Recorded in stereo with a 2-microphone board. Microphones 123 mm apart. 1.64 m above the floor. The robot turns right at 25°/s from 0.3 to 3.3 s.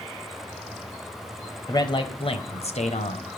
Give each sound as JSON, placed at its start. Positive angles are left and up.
{"t": 1.7, "sound": "a man speaking", "azimuth_deg": 35, "distance_m": 1.0}